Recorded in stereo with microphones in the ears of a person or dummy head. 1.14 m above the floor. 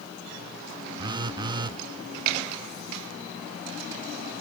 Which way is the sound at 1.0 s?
25° right (ahead or behind).